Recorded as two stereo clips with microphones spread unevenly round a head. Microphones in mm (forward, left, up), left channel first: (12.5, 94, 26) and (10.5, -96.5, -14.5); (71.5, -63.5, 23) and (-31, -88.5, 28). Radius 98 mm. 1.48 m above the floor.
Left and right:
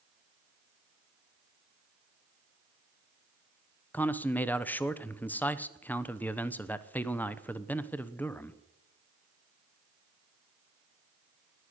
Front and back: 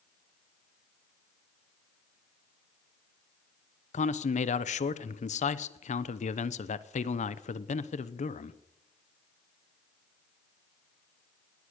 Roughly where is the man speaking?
Ahead.